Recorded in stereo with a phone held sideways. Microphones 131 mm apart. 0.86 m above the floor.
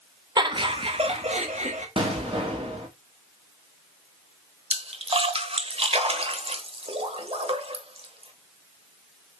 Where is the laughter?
30° right (ahead or behind), 1.3 m; by 1.9 s 60° right (ahead or behind), 1.8 m.